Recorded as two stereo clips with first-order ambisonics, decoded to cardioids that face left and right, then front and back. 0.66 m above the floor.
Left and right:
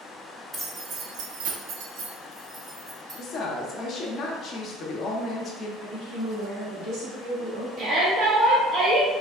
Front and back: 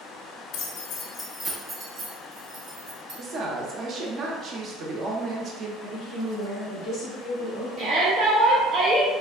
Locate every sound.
0.5 s keys jangling: 20° right, 0.7 m; by 3.2 s 145° right, 1.5 m
3.2 s a woman speaking: 130° left, 0.6 m
5.8 s a woman speaking: 100° right, 1.4 m
7.8 s a shout: 140° right, 0.7 m